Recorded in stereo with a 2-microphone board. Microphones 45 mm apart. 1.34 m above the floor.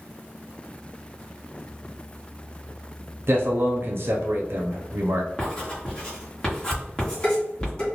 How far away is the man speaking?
About 0.6 m.